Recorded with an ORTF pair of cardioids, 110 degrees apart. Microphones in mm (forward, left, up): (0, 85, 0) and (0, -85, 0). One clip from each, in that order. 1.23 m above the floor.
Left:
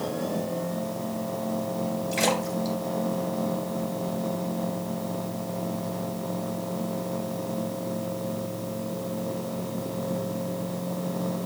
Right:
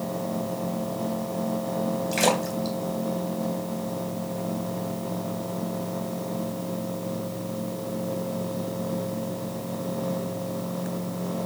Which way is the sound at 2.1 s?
20° right.